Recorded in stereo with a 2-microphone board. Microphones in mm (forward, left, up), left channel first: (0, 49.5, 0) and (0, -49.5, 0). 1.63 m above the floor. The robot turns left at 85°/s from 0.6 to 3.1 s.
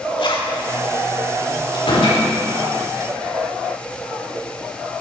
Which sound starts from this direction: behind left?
A door slam, at 1.7 s.